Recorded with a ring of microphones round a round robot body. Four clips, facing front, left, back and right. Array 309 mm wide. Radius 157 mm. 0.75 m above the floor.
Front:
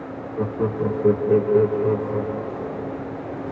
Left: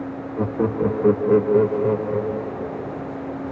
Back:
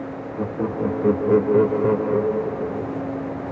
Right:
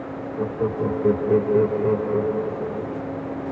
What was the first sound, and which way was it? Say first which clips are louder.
Laughter: left 3 dB, front 1 dB; 90° left.